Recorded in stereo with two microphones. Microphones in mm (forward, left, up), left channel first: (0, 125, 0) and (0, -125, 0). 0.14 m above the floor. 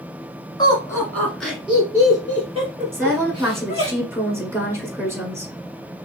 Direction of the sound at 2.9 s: 10° right (ahead or behind).